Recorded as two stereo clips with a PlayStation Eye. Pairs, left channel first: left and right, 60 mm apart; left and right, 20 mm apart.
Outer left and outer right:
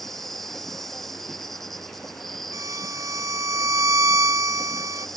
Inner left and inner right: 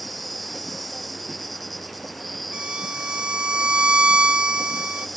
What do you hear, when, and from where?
0.0 s an insect: 5° left (ahead or behind)
2.5 s a violin: 60° right (ahead or behind)